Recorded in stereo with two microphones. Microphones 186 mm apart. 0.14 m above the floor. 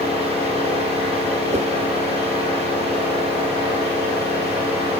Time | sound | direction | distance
1.5 | a whoosh | 35° right (ahead or behind) | 1.7 m